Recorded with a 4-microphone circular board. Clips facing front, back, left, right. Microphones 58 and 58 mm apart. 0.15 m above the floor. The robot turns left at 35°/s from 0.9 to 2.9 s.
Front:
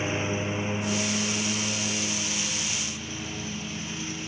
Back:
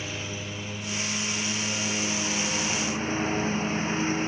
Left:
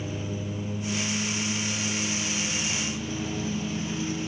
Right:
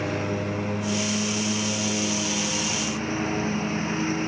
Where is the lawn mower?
60° right; by 4.3 s 130° right.